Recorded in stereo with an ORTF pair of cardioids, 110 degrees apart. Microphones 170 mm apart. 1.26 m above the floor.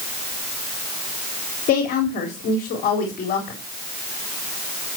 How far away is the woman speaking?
About 3.5 m.